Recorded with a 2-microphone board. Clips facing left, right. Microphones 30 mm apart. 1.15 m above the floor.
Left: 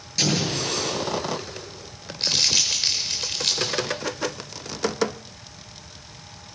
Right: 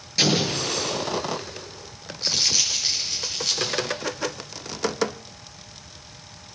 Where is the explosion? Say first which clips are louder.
Right 2 dB; 20° right (ahead or behind), 4 m.